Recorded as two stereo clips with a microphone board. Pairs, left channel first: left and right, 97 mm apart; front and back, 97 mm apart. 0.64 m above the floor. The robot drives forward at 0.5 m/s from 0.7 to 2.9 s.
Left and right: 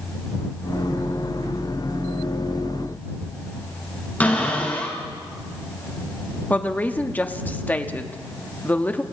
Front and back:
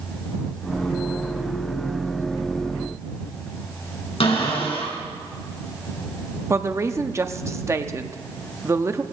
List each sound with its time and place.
4.2 s a cupboard door: 15° left, 4.5 m
6.5 s a woman speaking: 145° left, 0.9 m